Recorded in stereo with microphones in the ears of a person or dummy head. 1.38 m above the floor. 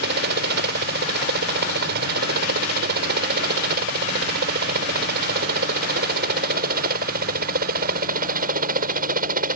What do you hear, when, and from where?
0.0 s a helicopter: 55° right (ahead or behind); by 9.6 s 45° right (ahead or behind)